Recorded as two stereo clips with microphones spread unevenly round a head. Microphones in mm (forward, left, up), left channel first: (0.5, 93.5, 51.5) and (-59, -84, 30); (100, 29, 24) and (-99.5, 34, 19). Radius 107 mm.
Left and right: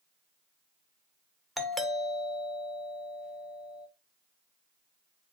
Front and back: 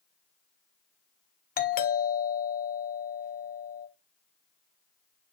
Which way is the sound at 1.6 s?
25° right.